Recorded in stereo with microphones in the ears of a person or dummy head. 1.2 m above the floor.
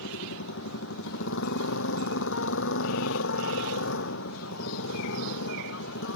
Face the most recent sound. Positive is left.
turn(degrees=60)  # may be behind; listen again after turning